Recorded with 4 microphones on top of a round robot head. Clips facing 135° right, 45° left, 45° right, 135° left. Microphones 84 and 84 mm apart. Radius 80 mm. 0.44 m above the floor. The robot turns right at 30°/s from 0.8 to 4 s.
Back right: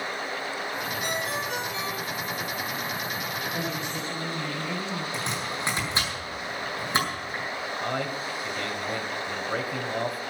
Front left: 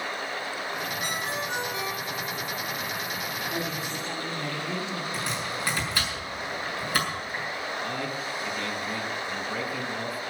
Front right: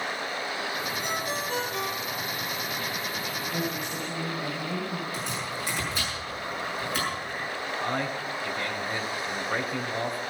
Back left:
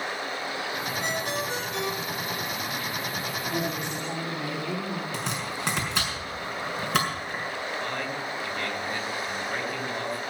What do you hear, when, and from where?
1.0 s a ringtone: 100° left, 5.5 m; by 2.4 s 140° left, 5.5 m
3.5 s a woman speaking: 115° left, 4 m; by 5.0 s 130° left, 4 m
5.1 s chopping: 155° left, 6.5 m
7.8 s a man speaking: 115° right, 3.5 m